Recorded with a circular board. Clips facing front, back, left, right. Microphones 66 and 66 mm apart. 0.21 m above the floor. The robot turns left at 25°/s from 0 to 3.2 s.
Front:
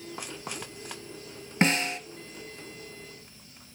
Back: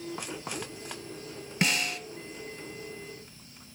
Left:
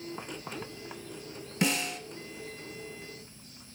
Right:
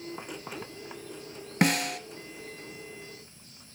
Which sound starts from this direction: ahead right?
A snare drum, at 1.6 s.